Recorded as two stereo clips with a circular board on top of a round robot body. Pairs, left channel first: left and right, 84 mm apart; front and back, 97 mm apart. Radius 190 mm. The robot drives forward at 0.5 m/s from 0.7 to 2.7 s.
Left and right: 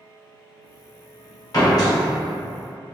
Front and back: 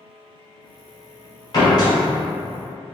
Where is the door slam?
45° left, 1.7 m; by 1.9 s 50° left, 1.6 m.